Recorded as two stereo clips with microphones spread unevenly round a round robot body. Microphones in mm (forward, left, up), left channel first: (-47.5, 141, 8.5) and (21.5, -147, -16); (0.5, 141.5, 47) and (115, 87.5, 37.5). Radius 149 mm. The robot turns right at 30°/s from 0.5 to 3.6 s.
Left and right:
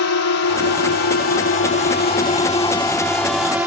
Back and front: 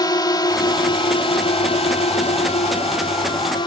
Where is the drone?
110° left; by 3.7 s 160° right.